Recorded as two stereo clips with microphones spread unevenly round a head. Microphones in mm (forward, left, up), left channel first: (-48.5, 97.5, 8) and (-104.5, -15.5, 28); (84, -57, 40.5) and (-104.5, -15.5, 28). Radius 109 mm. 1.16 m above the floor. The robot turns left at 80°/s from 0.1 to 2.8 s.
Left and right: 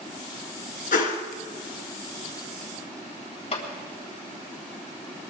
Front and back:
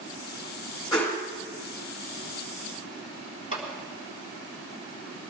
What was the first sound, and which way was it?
A whoosh, 60° left.